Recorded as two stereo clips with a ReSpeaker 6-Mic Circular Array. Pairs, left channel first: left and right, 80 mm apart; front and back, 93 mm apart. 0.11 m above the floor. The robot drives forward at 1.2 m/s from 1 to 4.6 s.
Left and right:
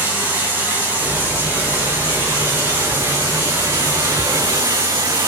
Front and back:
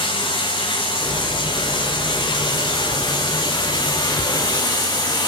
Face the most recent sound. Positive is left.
turn(degrees=-35)